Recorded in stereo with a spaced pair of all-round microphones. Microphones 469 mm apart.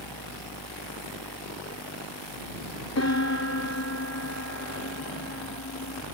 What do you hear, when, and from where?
0.0 s a fan: 55° right (ahead or behind)
3.0 s a piano: 35° left (ahead or behind)